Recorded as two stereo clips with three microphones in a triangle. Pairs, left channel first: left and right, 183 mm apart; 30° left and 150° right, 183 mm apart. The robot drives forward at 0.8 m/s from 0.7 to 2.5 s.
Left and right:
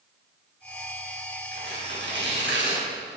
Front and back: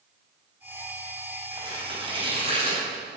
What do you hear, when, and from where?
1.5 s tearing paper: 85° right, 5 m; by 3.2 s 90° right, 5 m